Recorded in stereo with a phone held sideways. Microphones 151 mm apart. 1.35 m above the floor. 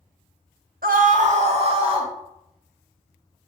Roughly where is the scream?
Right.